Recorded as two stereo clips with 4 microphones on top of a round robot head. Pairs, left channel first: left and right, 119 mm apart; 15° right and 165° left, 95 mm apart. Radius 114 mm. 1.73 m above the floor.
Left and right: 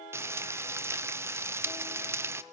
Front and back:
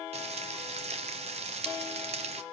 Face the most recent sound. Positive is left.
turn(degrees=-155)